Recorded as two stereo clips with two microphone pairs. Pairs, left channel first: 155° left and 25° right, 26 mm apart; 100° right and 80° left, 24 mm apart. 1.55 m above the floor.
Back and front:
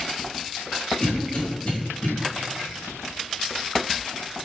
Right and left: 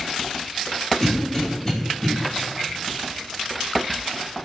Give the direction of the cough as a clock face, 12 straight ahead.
6 o'clock.